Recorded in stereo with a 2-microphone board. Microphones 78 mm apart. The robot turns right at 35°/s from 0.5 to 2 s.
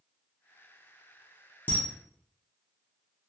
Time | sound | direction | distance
1.7 | a camera shutter | 25° left (ahead or behind) | 0.6 m